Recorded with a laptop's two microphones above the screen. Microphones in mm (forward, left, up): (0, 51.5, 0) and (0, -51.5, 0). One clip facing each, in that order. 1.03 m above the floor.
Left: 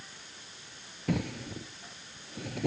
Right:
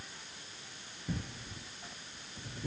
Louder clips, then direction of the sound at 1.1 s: Left 9 dB; 85° left.